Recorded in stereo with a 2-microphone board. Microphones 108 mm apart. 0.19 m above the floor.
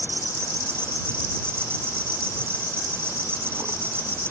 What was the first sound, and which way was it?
An insect, 25° right (ahead or behind).